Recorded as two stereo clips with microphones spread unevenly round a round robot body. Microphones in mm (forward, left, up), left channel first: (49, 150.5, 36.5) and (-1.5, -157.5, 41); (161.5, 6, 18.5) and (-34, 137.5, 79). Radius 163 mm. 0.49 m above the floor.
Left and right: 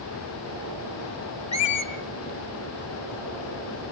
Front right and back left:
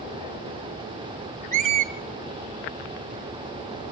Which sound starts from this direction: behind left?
A squeak, at 1.5 s.